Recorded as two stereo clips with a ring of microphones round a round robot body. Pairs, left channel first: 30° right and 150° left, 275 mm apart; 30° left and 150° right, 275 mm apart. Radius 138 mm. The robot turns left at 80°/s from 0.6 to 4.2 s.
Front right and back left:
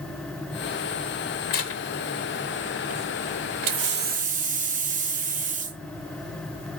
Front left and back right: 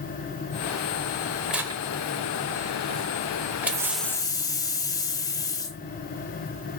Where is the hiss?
140° left, 0.8 m; by 5.8 s 100° left, 0.8 m.